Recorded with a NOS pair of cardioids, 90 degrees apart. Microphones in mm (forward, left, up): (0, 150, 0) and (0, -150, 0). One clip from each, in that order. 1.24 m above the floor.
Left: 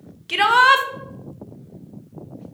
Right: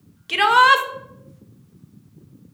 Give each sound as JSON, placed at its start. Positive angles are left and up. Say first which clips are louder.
{"t": 0.3, "sound": "a shout", "louder": "even", "azimuth_deg": 0, "distance_m": 0.6}